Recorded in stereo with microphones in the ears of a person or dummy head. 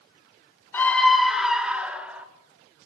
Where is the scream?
10° left (ahead or behind), 1.2 m; by 2.3 s 10° right (ahead or behind), 3.5 m.